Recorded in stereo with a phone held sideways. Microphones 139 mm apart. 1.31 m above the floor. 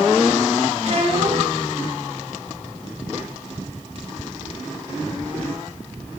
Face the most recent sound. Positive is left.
turn(degrees=-50)  # may be behind; listen again after turning